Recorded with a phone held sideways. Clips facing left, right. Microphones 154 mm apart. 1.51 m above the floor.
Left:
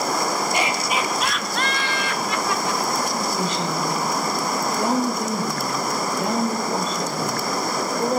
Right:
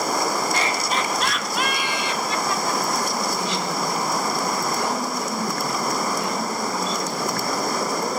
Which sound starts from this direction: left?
A woman speaking, at 3.4 s.